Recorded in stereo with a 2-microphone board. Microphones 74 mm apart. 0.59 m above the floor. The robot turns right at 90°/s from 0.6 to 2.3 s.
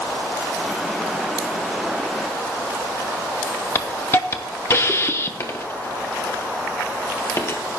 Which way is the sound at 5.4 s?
35° left (ahead or behind).